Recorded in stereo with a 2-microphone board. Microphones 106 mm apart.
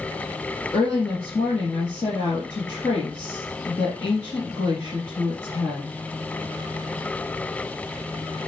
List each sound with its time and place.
0.7 s a woman speaking: 40° left (ahead or behind), 3.5 m